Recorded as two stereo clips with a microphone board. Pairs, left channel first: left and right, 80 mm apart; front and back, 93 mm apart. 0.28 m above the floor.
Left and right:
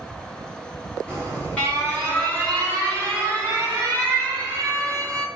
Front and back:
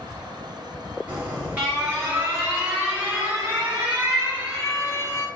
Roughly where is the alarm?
Behind left.